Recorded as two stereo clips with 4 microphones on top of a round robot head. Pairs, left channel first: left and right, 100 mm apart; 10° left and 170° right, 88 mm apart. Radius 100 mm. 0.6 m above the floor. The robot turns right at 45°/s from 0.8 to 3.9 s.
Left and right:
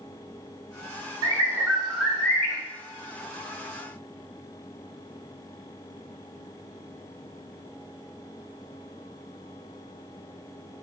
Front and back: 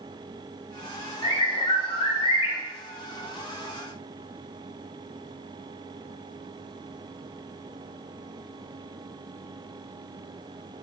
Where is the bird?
35° right, 0.9 m; by 2.6 s 25° left, 0.9 m.